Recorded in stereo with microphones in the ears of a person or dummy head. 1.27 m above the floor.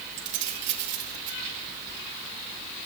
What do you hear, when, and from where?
0.2 s keys jangling: 55° right (ahead or behind), 2.5 m